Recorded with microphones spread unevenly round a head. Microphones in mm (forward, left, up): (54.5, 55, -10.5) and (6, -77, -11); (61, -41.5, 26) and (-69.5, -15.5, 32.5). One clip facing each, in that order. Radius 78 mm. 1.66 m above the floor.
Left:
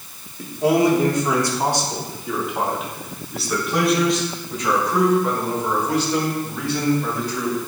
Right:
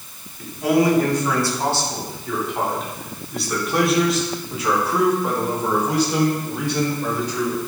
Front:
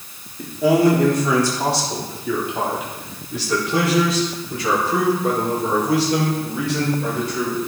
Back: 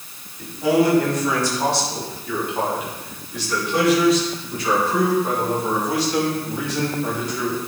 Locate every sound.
0.4 s a man speaking: 10° left, 3.5 m; by 7.6 s 40° right, 6 m